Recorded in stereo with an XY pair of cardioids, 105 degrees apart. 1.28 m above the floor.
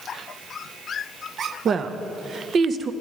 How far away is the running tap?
I don't hear a running tap.